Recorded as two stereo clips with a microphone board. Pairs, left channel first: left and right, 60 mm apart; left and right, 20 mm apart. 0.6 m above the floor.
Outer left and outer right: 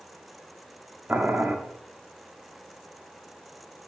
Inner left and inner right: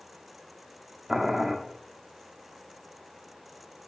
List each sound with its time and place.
1.1 s boiling: 30° right (ahead or behind), 0.8 m